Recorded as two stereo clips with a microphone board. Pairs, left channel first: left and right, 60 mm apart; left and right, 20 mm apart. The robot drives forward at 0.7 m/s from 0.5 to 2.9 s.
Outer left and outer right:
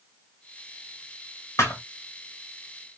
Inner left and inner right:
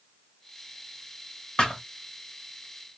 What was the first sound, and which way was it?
A thud, 45° left (ahead or behind).